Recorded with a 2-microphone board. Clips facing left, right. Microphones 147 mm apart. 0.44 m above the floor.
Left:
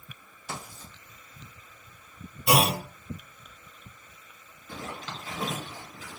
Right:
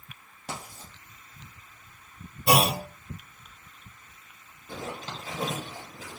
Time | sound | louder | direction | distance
0.5 | writing | right 1 dB | 75° right (ahead or behind) | 2 m
2.5 | a clunk | right 1 dB | 60° right (ahead or behind) | 1.3 m
4.7 | a zipper | right 2 dB | 40° right (ahead or behind) | 1.3 m